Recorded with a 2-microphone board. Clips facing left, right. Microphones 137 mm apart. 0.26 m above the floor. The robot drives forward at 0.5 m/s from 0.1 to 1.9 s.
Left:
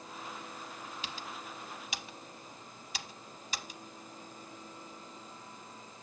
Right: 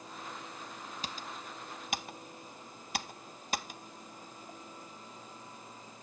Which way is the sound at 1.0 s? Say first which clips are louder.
Even; 45° right (ahead or behind).